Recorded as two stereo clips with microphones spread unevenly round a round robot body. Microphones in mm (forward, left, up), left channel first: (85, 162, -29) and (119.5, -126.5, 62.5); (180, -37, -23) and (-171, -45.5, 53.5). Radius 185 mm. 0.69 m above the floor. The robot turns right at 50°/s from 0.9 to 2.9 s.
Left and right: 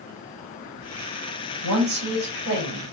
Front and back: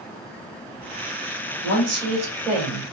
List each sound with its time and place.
1.6 s a woman speaking: 130° right, 3.5 m; by 2.8 s 70° right, 3.5 m